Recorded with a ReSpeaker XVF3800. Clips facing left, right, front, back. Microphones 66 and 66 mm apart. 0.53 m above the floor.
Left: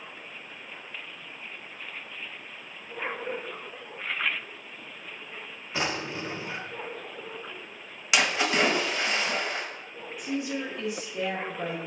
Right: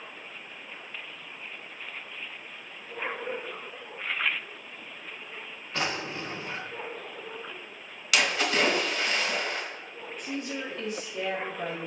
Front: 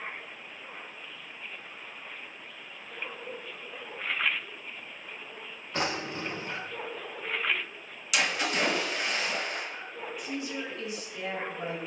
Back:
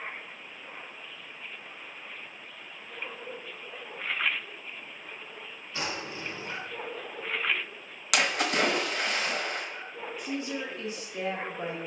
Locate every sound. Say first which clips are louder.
5.7 s a drawer: left 1 dB, front 4 dB; 10° left, 0.6 m
8.1 s a splash: left 1 dB, back 2 dB; 160° left, 0.9 m
10.2 s a woman speaking: left 4 dB, back 2 dB; 165° left, 1.0 m